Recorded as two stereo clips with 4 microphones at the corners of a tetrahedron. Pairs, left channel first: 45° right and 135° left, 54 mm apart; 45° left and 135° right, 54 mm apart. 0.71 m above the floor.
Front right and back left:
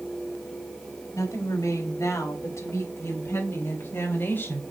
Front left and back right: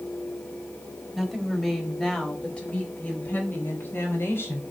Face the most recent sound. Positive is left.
turn(degrees=5)